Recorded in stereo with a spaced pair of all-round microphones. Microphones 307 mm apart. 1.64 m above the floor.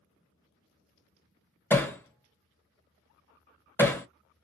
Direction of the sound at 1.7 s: 10° left (ahead or behind).